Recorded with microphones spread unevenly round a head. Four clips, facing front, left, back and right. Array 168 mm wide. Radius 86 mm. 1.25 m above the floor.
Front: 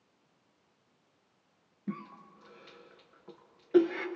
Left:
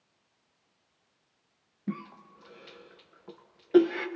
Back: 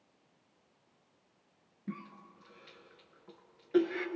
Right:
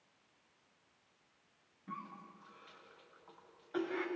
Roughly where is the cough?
Left.